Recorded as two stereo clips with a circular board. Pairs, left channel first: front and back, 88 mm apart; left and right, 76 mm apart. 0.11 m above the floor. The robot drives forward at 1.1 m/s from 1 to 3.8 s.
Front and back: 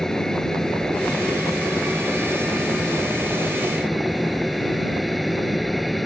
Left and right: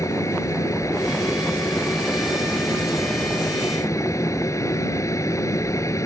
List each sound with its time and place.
0.0 s an aircraft: 80° left; by 6.1 s 90° left